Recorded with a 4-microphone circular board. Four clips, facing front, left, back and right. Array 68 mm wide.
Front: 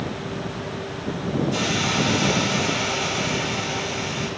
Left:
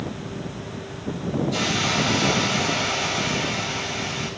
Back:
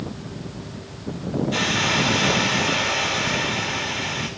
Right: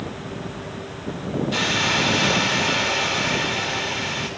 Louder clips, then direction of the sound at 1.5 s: Right 4 dB, back 1 dB; 130° right.